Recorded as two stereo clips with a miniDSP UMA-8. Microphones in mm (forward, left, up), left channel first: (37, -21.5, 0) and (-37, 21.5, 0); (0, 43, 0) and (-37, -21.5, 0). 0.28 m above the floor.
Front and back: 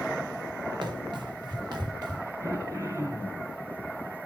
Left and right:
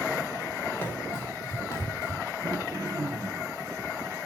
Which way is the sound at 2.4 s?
155° right.